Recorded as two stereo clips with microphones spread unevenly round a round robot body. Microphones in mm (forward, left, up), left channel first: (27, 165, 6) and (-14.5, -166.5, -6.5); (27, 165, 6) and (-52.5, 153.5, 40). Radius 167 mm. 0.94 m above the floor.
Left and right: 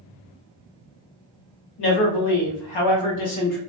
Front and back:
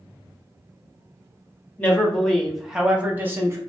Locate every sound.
1.8 s a man speaking: 70° left, 1.4 m; by 3.6 s 120° left, 1.1 m